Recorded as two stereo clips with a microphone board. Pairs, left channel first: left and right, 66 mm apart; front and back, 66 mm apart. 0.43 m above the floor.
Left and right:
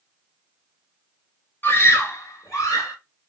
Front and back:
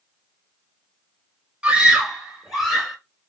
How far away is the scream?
About 1.2 m.